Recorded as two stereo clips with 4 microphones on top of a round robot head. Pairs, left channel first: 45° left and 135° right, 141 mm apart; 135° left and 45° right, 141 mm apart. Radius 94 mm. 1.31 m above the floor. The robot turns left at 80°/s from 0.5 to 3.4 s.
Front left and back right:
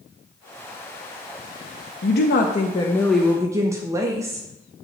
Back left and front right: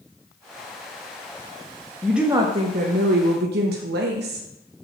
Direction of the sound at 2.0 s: 50° left.